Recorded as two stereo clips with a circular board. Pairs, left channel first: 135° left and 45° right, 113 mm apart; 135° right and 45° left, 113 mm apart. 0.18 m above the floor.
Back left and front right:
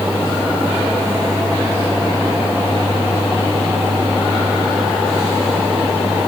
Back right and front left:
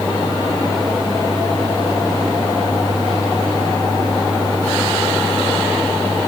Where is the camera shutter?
No camera shutter in this recording.